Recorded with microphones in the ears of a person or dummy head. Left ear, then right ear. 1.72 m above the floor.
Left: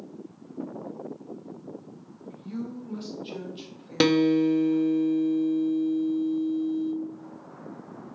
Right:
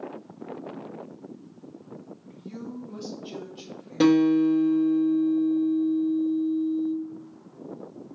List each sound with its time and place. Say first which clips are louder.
2.2 s a woman speaking: left 6 dB; 5° right (ahead or behind), 0.9 m; by 5.0 s 25° left (ahead or behind), 2 m
4.0 s a guitar: right 1 dB; 40° left (ahead or behind), 0.7 m